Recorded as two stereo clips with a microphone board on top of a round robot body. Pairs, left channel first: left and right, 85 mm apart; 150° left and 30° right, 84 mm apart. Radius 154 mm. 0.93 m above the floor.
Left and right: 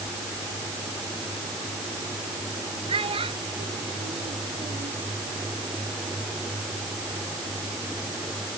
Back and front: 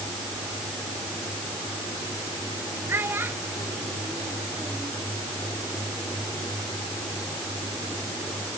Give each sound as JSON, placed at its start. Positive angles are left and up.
{"t": 2.9, "sound": "a child speaking", "azimuth_deg": -95}